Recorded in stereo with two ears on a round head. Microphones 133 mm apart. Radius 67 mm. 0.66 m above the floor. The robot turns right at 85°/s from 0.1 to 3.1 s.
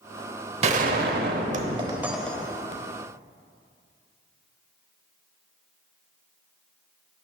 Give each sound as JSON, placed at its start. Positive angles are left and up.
{"t": 0.6, "sound": "a gunshot", "azimuth_deg": -130, "distance_m": 0.7}